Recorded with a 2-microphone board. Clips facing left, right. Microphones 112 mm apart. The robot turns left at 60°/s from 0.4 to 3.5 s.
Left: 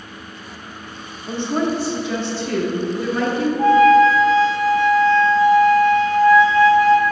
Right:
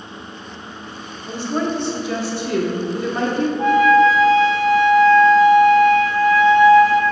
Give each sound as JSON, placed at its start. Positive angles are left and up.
{"t": 1.3, "sound": "a woman speaking", "azimuth_deg": 40, "distance_m": 0.9}
{"t": 3.6, "sound": "a flute", "side_deg": 35, "distance_m": 0.9}